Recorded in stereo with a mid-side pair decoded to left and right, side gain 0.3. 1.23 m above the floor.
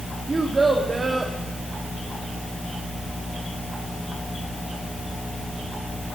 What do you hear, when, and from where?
0.3 s a child speaking: 40° right, 2.0 m